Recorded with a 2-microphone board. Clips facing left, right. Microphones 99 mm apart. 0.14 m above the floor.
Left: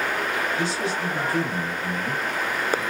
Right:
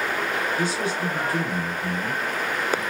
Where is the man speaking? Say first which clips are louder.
Right 1 dB; 15° right (ahead or behind), 1.6 m.